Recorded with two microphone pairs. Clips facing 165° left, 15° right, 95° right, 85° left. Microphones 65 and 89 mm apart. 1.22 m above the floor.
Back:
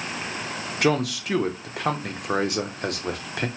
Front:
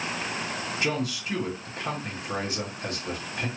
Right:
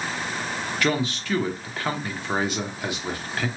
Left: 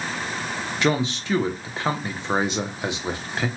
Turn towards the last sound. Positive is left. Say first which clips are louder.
# back 8 dB, left 3 dB
turn(degrees=150)